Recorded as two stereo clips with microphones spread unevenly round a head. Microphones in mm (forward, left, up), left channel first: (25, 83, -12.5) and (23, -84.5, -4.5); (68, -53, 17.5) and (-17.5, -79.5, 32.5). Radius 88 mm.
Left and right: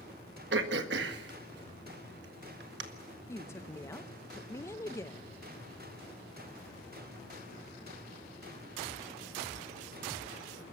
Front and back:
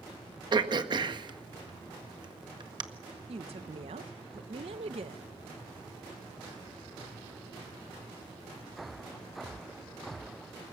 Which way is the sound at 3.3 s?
165° left.